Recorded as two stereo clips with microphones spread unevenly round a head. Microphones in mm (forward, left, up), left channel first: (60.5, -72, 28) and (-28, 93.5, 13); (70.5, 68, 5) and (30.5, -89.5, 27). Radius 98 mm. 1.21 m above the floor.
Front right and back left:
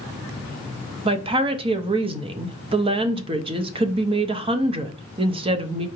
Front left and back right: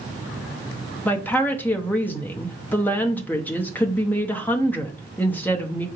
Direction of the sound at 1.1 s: 130° left.